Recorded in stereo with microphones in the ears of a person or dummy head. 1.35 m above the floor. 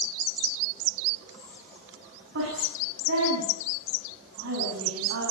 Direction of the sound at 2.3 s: 65° right (ahead or behind).